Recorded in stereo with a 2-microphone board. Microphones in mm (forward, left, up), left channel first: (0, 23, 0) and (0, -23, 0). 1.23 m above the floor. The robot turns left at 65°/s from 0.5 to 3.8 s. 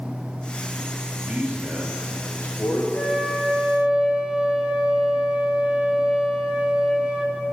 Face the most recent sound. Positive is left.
turn(degrees=-25)